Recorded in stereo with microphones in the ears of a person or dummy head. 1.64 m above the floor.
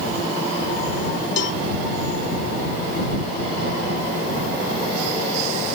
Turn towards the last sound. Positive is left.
turn(degrees=70)  # may be behind; listen again after turning